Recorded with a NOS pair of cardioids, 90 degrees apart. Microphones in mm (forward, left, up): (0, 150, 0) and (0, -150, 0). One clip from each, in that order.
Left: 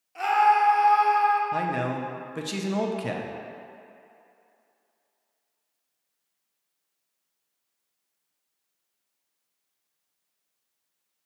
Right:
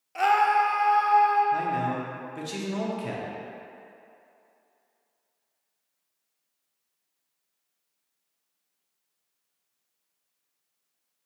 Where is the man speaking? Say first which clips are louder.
Right 1 dB; 25° left, 0.6 m.